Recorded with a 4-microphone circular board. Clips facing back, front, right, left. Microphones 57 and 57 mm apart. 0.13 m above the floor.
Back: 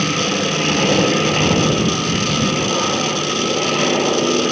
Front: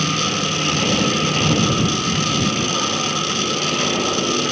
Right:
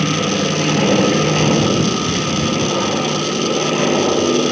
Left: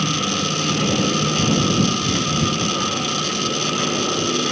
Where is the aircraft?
120° right.